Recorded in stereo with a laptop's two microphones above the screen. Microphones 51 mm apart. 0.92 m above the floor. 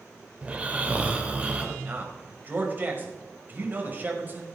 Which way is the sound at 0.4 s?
25° right (ahead or behind).